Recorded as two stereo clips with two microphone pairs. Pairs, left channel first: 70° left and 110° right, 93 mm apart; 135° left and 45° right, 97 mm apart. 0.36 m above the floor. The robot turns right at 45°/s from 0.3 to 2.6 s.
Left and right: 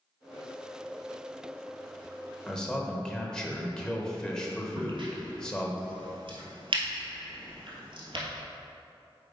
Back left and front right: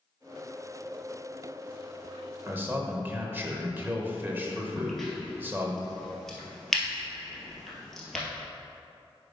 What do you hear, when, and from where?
2.5 s a man speaking: 10° right, 0.9 m; by 5.8 s 5° right, 0.9 m
4.8 s a crack: 135° right, 1.5 m